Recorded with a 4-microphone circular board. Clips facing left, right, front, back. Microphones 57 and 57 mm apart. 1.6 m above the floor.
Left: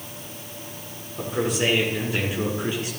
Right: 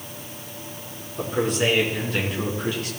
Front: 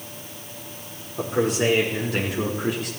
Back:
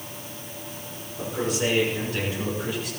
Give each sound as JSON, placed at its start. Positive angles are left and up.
{"t": 1.2, "sound": "a man speaking", "azimuth_deg": 0, "distance_m": 4.5}